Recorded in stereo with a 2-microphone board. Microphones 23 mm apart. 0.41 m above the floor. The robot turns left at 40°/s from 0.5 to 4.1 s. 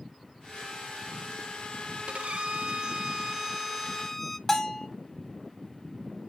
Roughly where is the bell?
Left.